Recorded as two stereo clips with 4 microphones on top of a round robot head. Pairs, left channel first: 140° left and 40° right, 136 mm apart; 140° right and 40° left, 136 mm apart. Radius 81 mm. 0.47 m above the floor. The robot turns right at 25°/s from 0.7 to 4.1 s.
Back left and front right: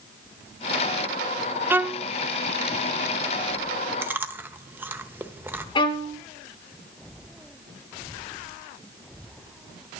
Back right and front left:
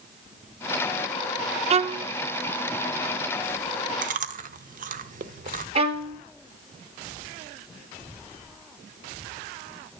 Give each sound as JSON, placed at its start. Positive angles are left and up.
{"t": 1.7, "sound": "a violin", "azimuth_deg": 30, "distance_m": 0.5}
{"t": 4.0, "sound": "chewing", "azimuth_deg": 35, "distance_m": 0.9}
{"t": 5.8, "sound": "a violin", "azimuth_deg": 85, "distance_m": 2.0}